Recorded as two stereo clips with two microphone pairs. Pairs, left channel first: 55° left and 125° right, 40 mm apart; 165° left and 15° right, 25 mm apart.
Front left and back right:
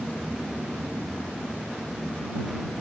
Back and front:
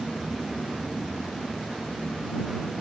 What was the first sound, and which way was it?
Only background noise.